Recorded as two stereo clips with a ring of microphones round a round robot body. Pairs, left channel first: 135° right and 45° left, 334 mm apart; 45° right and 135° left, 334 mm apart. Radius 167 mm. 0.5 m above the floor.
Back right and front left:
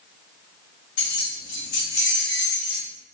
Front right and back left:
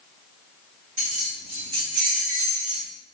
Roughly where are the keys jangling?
Behind.